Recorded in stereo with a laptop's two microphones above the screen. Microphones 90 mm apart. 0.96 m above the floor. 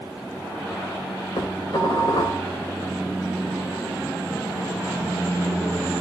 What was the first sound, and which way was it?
Dishes clattering, 60° left (ahead or behind).